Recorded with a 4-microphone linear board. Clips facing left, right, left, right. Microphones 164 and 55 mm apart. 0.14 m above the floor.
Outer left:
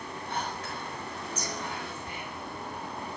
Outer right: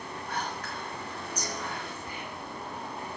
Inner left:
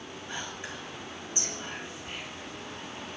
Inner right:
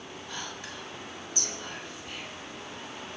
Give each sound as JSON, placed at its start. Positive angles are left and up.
{"t": 0.3, "sound": "whispering", "side_deg": 25, "distance_m": 3.0}